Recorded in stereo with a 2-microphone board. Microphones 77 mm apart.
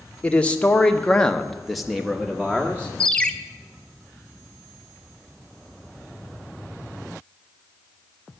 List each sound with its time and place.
0.2 s a man speaking: 20° left (ahead or behind), 1.5 m; by 2.9 s 10° right (ahead or behind), 1.5 m
3.0 s a ringtone: 15° left (ahead or behind), 0.9 m